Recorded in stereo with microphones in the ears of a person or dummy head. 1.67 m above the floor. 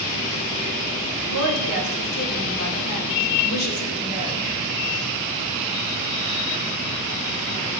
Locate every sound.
1.3 s a woman speaking: 85° left, 2.5 m